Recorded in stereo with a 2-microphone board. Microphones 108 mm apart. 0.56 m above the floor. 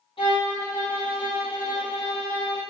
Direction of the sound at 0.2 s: 55° left (ahead or behind).